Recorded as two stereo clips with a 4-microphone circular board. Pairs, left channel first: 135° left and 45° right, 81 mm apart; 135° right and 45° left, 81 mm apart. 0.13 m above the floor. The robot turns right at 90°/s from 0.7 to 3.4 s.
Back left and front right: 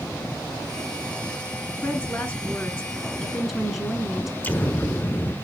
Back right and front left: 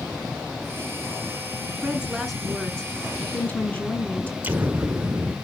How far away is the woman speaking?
About 1.4 m.